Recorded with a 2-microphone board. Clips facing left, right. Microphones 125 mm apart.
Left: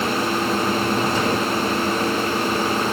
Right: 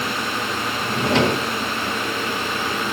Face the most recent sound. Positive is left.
turn(degrees=-75)  # may be behind; listen again after turning